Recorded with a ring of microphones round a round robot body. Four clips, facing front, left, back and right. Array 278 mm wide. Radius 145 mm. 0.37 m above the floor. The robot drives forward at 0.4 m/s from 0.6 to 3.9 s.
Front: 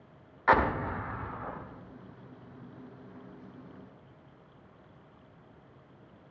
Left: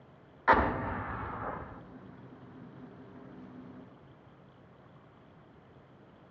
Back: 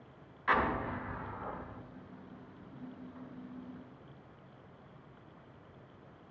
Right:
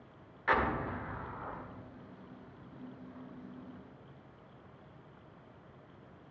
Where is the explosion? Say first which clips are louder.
Left 5 dB, front 6 dB; 30° left, 0.6 m; by 1.8 s 105° left, 0.5 m.